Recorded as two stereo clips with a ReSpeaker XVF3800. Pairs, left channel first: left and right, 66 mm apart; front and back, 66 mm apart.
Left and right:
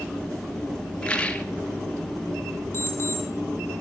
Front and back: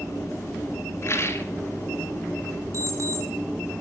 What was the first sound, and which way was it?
A rattle, 20° left.